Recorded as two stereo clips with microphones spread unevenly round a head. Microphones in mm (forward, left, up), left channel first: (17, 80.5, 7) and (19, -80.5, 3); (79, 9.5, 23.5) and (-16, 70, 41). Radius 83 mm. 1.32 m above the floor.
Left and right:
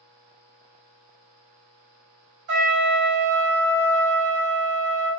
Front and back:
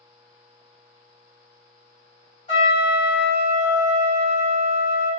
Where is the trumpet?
75° right, 1.5 m.